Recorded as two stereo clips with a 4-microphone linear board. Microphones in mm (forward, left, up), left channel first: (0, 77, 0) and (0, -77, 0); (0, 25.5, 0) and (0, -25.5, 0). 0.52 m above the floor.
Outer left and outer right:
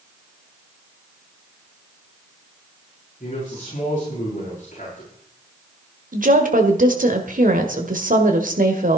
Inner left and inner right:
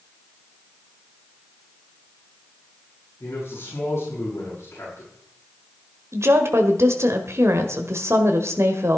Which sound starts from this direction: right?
A woman speaking, at 6.1 s.